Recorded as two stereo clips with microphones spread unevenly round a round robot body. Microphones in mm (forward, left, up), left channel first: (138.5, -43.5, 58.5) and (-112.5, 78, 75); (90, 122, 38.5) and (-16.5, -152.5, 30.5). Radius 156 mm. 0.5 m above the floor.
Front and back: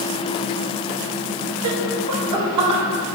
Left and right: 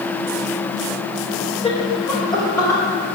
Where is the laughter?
140° left, 1.6 m; by 2.8 s 150° left, 3 m.